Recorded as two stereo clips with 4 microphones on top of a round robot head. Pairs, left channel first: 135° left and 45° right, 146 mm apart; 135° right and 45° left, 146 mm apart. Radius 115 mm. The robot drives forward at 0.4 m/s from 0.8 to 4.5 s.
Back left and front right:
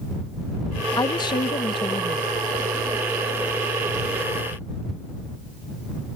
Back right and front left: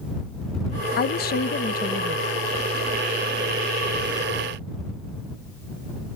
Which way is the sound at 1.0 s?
155° right.